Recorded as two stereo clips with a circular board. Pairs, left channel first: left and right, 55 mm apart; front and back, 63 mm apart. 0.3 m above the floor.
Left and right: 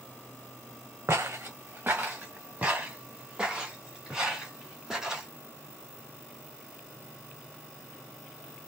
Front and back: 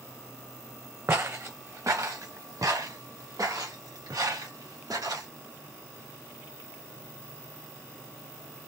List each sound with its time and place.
1.1 s footsteps: 130° right, 1.0 m; by 5.3 s 175° right, 3 m